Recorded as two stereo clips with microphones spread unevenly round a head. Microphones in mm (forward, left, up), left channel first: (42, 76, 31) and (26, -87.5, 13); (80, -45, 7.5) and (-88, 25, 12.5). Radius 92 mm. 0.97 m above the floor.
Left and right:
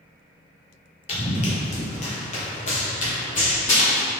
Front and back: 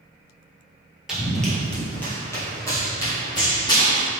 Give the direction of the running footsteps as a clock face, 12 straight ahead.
10 o'clock.